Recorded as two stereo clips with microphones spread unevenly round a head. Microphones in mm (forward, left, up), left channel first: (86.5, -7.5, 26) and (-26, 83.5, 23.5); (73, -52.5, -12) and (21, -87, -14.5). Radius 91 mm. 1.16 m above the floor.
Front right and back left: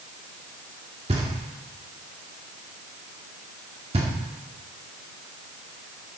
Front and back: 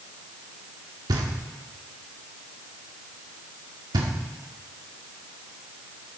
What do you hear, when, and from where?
1.1 s knocking: 155° right, 1.6 m